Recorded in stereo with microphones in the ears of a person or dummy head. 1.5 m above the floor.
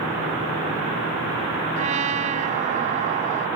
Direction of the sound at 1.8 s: 40° right (ahead or behind).